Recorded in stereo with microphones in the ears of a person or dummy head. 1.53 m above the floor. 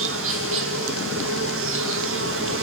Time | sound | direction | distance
0.0 | an insect | 60° right (ahead or behind) | 1.8 m